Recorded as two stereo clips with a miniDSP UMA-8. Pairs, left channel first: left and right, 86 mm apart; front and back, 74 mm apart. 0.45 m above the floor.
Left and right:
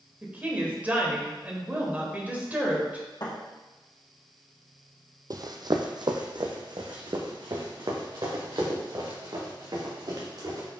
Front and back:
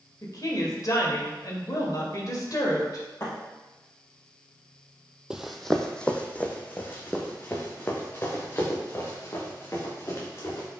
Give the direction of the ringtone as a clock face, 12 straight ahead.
I don't hear a ringtone.